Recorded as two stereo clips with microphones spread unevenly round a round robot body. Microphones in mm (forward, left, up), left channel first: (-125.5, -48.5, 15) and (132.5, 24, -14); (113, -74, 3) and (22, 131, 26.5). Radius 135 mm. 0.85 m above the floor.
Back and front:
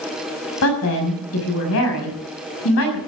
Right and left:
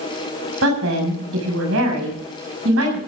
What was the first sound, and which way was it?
A woman speaking, 160° left.